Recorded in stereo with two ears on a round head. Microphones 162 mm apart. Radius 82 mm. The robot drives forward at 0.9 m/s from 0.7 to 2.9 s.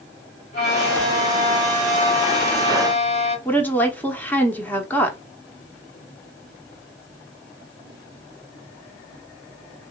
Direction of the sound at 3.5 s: 10° left (ahead or behind).